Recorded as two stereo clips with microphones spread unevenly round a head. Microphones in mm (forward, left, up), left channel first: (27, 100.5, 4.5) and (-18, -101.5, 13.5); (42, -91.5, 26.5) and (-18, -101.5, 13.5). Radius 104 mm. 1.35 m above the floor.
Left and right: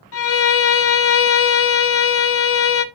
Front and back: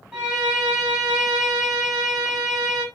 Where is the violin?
110° left, 0.9 m.